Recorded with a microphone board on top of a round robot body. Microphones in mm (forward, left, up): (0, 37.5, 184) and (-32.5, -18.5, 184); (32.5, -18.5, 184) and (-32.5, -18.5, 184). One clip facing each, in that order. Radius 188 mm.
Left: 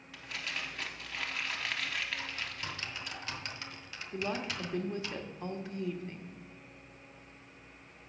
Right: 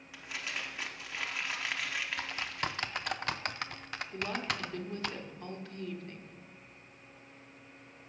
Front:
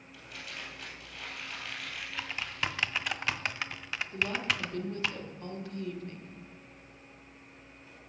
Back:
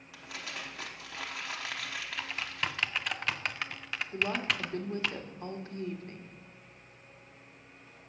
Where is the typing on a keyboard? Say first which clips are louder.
Right 4 dB, front 1 dB; 90° right, 0.5 m.